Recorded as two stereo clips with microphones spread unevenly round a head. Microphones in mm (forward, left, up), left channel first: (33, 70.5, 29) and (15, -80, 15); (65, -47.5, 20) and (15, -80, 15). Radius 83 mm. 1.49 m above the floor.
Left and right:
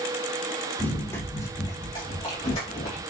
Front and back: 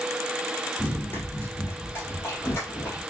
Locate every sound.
0.8 s running footsteps: 20° left, 1.8 m; by 3.0 s 65° left, 2 m